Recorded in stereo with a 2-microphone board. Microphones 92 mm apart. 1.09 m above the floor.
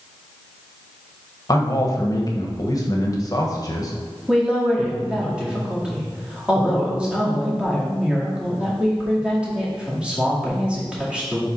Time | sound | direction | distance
1.5 | a man speaking | 40° left (ahead or behind) | 1.2 m
4.3 | a woman speaking | 10° right (ahead or behind) | 2 m